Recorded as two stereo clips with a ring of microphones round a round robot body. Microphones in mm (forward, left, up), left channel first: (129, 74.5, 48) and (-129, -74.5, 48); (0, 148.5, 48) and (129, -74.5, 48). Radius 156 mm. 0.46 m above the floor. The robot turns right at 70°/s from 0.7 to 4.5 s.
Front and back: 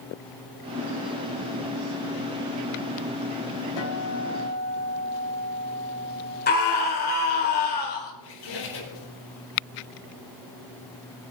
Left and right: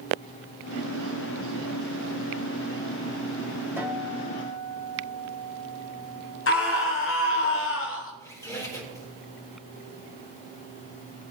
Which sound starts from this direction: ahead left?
A squeak, at 8.2 s.